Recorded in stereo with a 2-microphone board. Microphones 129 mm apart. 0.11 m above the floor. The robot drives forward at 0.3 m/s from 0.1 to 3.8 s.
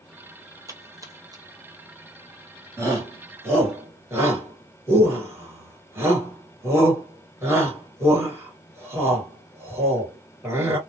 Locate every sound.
0.7 s a splash: 25° right (ahead or behind), 1.0 m; by 1.4 s 30° right (ahead or behind), 0.8 m
2.8 s a shout: 20° right (ahead or behind), 1.8 m